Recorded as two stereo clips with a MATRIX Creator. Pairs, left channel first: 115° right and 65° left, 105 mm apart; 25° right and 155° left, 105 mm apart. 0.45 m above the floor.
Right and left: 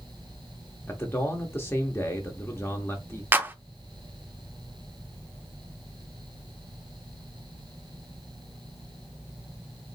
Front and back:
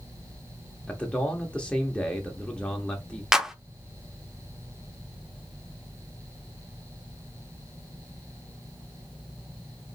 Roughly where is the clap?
Left.